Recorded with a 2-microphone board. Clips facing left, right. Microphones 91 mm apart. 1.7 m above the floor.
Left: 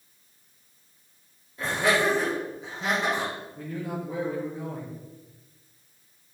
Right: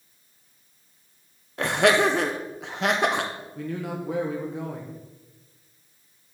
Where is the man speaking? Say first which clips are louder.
Right 5 dB; 75° right (ahead or behind), 1.2 m.